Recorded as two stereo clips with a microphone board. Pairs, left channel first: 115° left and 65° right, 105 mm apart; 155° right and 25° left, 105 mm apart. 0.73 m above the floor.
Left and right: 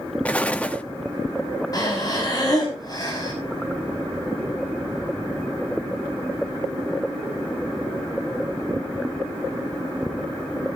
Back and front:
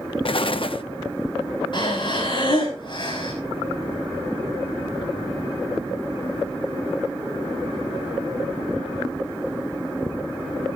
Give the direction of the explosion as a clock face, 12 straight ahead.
6 o'clock.